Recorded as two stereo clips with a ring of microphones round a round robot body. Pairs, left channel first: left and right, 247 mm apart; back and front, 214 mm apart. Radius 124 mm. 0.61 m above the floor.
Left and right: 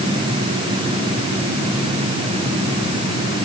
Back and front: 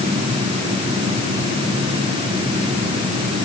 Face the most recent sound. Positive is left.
No sound to turn to.